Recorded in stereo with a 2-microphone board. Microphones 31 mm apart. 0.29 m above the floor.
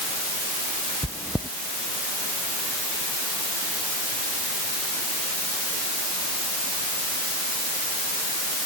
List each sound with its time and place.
1.0 s chewing: 50° right (ahead or behind)